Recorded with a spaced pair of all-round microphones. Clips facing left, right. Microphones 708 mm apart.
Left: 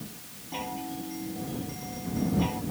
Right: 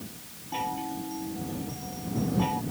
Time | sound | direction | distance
0.5 | a chime | 5° left (ahead or behind) | ?